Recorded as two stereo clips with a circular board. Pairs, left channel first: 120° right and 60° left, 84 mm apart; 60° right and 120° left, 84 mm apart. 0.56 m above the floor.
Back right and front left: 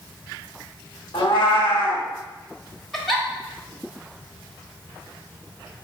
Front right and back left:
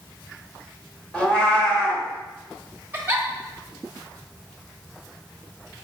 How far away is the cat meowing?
About 0.9 m.